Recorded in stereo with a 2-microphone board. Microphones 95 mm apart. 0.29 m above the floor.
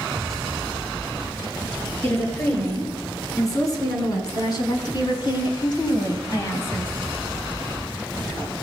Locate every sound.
2.0 s a woman speaking: 30° left (ahead or behind), 5 m; by 6.9 s 25° left (ahead or behind), 2 m